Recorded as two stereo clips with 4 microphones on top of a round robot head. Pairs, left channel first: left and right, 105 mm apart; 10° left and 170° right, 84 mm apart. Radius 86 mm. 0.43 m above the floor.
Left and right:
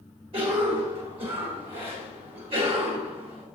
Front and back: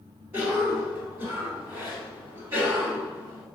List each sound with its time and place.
0.3 s a cough: 105° right, 2 m